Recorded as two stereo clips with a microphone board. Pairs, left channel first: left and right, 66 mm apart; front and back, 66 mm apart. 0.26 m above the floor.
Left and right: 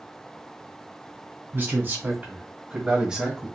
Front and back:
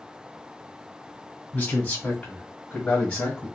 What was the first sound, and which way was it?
A man speaking, 60° right.